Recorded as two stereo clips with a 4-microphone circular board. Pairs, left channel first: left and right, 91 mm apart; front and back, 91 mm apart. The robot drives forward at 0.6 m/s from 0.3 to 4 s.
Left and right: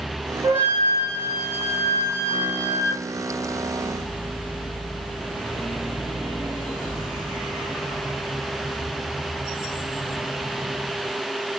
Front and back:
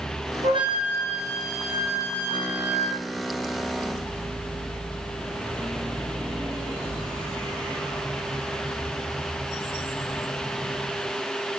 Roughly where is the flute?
Behind.